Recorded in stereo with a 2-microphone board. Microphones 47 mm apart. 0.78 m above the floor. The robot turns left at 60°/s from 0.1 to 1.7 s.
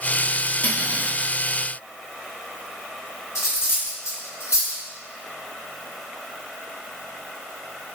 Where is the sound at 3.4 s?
80° left, 1.3 m.